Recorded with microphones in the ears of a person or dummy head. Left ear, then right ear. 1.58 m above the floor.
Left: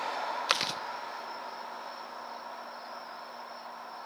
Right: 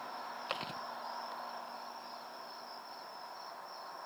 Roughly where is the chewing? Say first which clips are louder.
Left 10 dB; left.